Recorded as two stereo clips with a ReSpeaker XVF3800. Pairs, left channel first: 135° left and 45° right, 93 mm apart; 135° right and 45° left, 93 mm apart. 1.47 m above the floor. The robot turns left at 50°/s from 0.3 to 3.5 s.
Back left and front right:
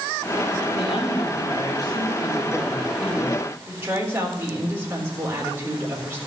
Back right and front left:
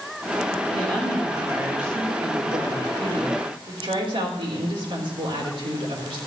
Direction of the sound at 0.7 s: 160° left.